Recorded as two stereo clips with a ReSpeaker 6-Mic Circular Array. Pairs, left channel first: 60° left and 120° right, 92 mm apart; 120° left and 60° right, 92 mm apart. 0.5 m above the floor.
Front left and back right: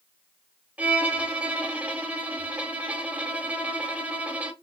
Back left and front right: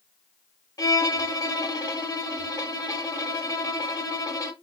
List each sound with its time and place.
0.8 s a violin: 165° left, 0.7 m